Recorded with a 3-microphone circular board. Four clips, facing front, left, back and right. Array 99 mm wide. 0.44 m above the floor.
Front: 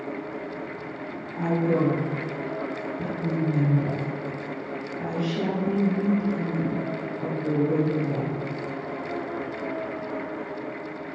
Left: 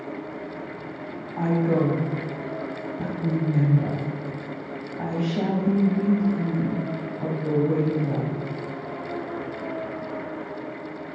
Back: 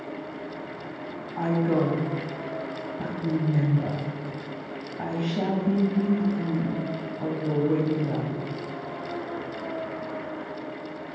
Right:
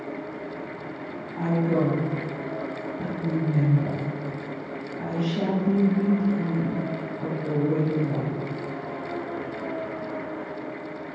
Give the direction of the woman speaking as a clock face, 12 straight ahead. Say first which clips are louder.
Left 1 dB, even; 7 o'clock.